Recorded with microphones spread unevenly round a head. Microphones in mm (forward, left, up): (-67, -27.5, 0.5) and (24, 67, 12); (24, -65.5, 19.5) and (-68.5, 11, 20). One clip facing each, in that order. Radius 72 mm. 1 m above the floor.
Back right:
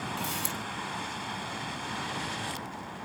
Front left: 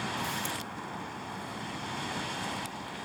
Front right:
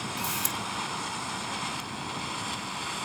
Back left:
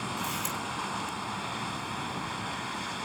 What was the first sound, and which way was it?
A camera shutter, 80° right.